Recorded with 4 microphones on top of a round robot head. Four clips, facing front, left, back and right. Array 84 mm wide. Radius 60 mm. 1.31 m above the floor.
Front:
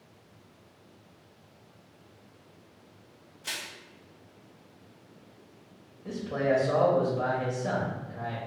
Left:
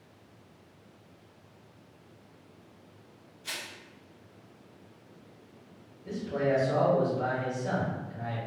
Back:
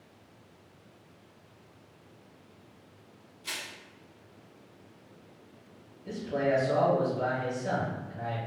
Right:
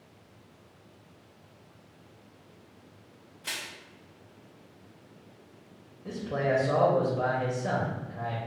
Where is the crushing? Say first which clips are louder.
Right 2 dB, front 1 dB; 60° right, 0.9 m.